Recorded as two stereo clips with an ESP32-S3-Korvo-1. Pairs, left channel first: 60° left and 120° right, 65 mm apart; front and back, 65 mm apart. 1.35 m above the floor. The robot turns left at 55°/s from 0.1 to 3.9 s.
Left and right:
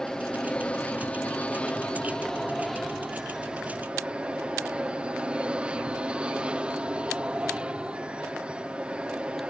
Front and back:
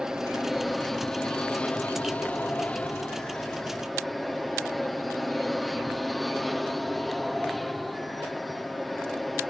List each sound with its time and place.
0.0 s an aircraft: 120° left; by 9.5 s 90° right